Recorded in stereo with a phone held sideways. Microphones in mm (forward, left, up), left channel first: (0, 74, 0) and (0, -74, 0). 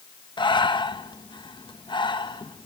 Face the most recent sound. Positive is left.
turn(degrees=35)  # may be behind; listen again after turning